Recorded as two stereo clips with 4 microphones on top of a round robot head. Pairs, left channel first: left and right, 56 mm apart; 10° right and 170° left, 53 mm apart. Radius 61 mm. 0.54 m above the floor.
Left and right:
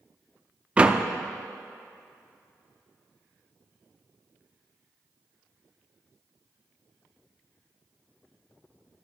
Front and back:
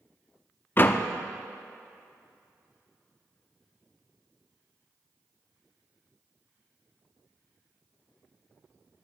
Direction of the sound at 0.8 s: 30° right.